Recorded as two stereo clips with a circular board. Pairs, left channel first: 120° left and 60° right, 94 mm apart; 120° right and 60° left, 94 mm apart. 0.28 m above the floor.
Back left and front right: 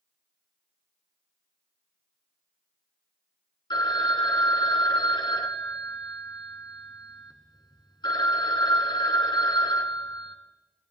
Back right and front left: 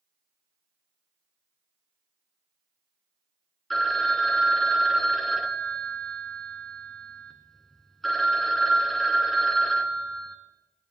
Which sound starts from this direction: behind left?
A phone ringing, at 3.7 s.